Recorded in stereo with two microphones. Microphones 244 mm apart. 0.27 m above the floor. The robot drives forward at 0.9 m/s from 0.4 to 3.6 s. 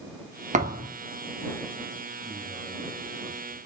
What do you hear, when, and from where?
0.5 s a thud: 30° right (ahead or behind), 2 m; by 0.9 s 25° right (ahead or behind), 2.5 m
2.2 s a man speaking: 35° right (ahead or behind), 4.5 m; by 3.6 s 30° right (ahead or behind), 5.5 m